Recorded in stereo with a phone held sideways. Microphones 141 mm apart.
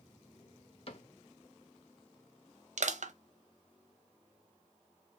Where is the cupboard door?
45° left (ahead or behind), 0.6 m.